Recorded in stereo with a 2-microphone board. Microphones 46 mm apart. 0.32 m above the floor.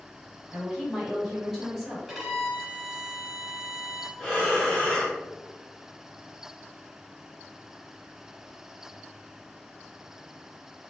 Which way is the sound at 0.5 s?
10° right (ahead or behind).